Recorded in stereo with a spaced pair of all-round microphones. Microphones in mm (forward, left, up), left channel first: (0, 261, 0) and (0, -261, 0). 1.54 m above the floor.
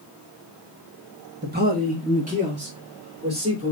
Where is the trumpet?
I don't hear a trumpet.